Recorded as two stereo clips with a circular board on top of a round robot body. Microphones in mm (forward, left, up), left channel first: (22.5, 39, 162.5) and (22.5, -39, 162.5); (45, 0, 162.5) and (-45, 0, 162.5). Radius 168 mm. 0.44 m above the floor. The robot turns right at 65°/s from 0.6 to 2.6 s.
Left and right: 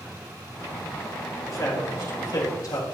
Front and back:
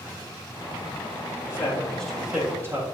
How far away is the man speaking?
About 3.5 m.